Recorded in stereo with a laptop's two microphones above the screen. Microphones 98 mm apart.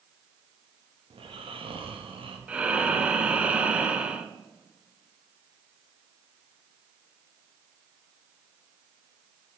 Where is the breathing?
10° right (ahead or behind), 0.7 m.